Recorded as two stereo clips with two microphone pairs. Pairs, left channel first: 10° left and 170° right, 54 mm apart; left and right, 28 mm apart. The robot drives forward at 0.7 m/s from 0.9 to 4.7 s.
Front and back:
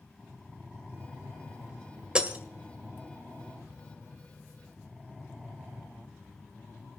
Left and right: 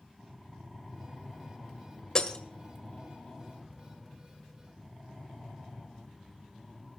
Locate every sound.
2.1 s breaking glass: 125° left, 1.6 m; by 2.4 s 135° left, 1.6 m